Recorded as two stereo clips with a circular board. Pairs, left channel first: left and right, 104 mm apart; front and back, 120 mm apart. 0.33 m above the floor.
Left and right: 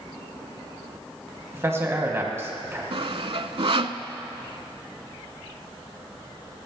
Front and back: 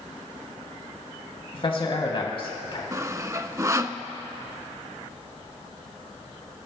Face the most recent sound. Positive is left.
turn(degrees=-115)